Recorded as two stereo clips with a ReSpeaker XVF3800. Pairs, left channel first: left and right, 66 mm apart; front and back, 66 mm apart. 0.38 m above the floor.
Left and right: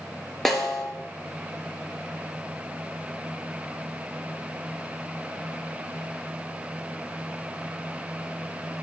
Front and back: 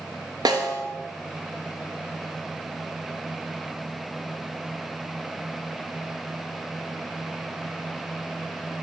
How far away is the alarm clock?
I don't hear an alarm clock.